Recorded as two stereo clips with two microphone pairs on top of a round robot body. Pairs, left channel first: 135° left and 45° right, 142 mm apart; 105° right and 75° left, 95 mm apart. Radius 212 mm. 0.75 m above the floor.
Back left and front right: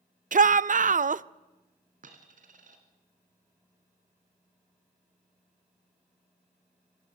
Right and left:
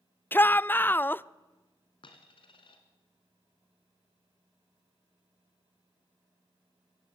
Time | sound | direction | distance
0.3 | a shout | 40° right | 0.6 m
2.0 | a dropped coin | 75° right | 2 m